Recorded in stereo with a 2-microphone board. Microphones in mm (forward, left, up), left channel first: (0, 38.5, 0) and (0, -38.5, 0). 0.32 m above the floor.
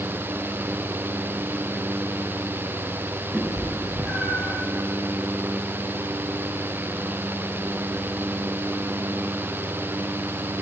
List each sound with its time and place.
3.3 s a cat meowing: 5° right (ahead or behind), 1.8 m; by 4.6 s 10° right (ahead or behind), 2.5 m